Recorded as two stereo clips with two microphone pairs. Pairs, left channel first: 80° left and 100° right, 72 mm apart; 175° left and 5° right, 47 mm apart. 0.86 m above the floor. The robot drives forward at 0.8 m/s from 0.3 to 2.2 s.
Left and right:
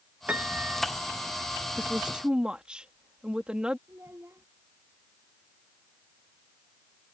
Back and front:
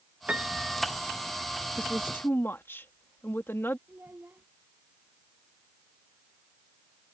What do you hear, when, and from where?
0.3 s a piano: 50° right; by 0.8 s 90° right
1.8 s a woman speaking: 175° right
3.9 s a child speaking: 45° right